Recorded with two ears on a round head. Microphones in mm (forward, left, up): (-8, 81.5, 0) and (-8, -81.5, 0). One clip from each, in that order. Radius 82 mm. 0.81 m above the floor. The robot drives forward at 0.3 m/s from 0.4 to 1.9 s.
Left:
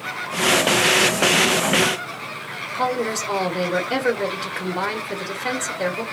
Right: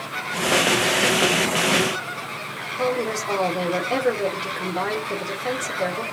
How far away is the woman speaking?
About 1.1 m.